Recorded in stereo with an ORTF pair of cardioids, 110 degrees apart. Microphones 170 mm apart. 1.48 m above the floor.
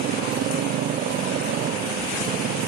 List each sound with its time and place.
0.0 s a motorcycle: 65° right